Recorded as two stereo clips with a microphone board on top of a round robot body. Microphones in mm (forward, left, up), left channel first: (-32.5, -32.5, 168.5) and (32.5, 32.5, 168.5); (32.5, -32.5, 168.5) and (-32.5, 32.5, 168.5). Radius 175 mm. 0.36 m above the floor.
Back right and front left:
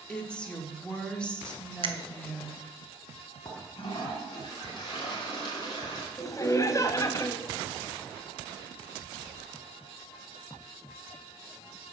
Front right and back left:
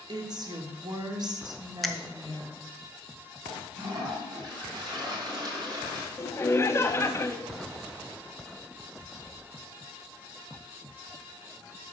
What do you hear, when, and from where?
0.1 s a woman speaking: 150° left, 1.8 m
1.8 s a finger snap: 45° left, 1.0 m
3.5 s a toilet flushing: straight behind, 2.5 m
6.2 s laughter: 95° right, 1.2 m